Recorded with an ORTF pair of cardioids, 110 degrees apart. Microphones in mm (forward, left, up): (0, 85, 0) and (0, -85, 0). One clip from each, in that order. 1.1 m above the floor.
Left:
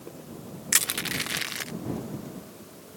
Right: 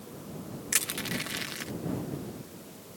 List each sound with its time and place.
0.7 s crushing: 25° left